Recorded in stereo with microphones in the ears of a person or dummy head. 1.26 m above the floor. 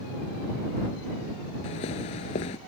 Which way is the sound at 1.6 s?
25° left (ahead or behind).